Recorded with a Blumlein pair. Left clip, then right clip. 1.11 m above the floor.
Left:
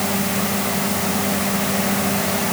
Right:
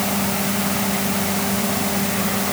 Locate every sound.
Only background noise.